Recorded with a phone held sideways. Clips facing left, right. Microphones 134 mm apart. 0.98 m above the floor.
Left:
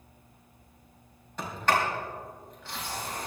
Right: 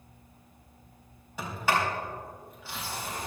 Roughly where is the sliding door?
Centre.